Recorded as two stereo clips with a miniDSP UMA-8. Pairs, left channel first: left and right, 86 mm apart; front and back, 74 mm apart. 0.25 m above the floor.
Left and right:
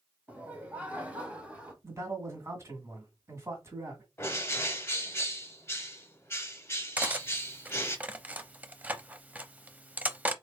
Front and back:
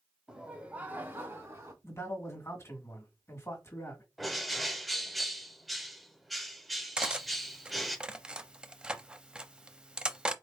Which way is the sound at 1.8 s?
45° right.